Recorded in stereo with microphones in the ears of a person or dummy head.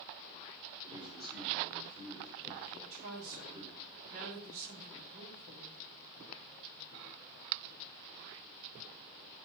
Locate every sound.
0.8 s a man speaking: 30° right (ahead or behind), 4.5 m
2.7 s a woman speaking: 45° right (ahead or behind), 2.0 m